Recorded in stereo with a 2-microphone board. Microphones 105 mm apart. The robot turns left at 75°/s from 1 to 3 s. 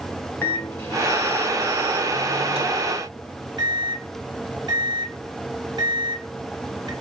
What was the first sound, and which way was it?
A microwave, 20° left (ahead or behind).